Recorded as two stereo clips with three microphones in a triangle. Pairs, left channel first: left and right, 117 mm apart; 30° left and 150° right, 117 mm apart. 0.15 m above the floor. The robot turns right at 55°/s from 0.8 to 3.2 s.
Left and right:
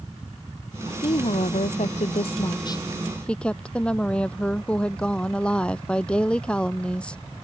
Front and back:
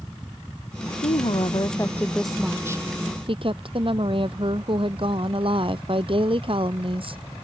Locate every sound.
1.0 s a woman speaking: 50° left; by 7.2 s 170° left